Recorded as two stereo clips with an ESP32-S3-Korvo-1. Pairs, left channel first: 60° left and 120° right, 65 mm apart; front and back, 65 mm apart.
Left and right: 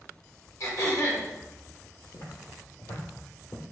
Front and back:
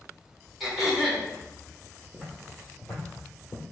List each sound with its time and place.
0.6 s throat clearing: 90° left, 1.3 m
2.1 s footsteps: 75° left, 1.4 m; by 3.6 s 40° left, 1.2 m